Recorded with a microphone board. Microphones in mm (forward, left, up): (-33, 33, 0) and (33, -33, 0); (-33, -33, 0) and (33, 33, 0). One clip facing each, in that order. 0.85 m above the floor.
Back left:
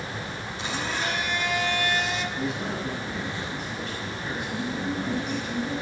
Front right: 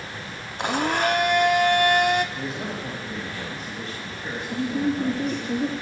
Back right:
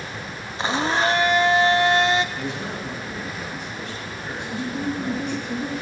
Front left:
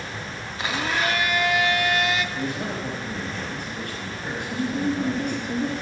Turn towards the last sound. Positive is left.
turn(degrees=-35)